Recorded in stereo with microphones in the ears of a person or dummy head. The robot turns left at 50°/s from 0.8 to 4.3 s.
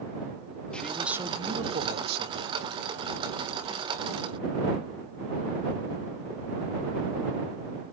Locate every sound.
0.7 s a man speaking: 5° left; by 2.5 s 80° right